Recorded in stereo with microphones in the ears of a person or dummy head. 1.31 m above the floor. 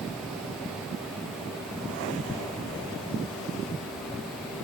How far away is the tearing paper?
About 0.8 m.